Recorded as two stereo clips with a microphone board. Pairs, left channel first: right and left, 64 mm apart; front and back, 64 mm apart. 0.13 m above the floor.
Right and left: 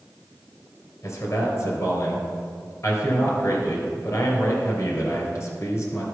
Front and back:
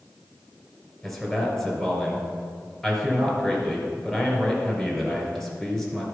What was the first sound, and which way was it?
A man speaking, 75° right.